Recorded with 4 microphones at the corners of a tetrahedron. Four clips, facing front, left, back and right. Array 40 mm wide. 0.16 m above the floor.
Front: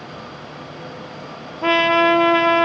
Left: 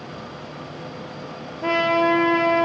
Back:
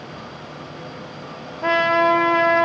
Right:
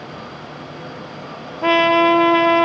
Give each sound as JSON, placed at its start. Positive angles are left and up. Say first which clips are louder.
{"t": 1.6, "sound": "a trumpet", "louder": "right 5 dB, front 2 dB", "azimuth_deg": -45, "distance_m": 1.3}